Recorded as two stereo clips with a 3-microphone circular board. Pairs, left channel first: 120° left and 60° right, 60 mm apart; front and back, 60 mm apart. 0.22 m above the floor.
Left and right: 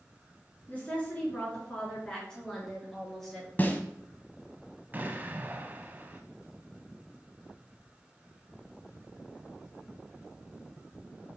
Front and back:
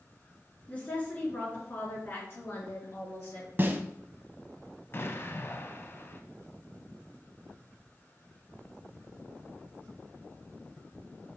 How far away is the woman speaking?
About 3.5 m.